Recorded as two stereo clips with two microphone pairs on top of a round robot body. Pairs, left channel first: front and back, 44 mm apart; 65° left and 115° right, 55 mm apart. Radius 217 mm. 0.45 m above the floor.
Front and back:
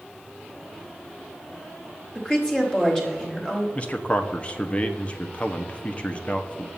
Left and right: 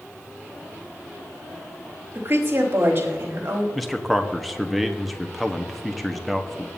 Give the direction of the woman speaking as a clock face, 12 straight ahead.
2 o'clock.